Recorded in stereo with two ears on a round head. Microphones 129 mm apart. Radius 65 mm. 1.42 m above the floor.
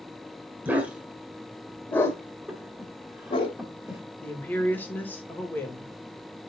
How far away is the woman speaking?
About 2 m.